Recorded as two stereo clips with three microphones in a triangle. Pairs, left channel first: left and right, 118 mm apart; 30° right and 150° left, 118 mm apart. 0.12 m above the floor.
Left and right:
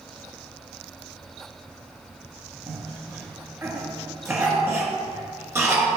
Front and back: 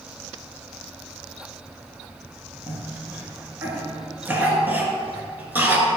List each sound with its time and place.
2.7 s a cough: 145° right, 1.8 m